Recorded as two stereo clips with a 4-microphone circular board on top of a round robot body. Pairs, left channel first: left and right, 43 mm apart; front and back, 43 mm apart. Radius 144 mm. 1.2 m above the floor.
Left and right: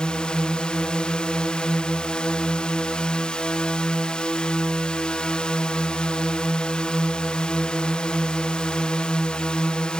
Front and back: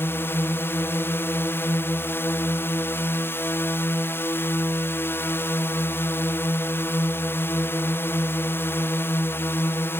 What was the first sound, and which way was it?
A drone, 20° left.